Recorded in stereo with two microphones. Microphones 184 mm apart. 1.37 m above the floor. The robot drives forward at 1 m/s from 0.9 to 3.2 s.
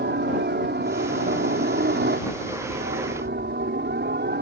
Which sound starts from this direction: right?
A helicopter, at 0.0 s.